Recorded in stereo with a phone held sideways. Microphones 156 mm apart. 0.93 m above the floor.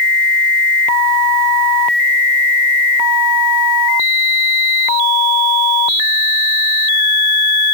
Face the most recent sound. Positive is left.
No sound to turn to.